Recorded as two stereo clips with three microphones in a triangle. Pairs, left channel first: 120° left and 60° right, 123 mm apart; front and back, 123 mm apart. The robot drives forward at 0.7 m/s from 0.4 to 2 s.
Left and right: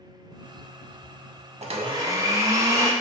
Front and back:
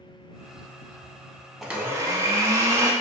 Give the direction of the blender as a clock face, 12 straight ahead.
3 o'clock.